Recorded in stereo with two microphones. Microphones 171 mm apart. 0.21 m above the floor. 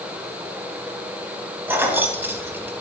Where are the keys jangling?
10° right (ahead or behind), 0.9 m.